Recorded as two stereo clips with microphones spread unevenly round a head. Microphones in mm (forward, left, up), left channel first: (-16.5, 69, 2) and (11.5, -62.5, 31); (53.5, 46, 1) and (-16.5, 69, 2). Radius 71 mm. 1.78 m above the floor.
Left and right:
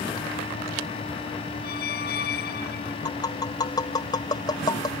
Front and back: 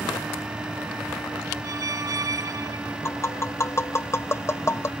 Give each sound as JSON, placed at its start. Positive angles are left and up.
{"t": 1.6, "sound": "a squeak", "azimuth_deg": 120}
{"t": 3.0, "sound": "tapping", "azimuth_deg": 35}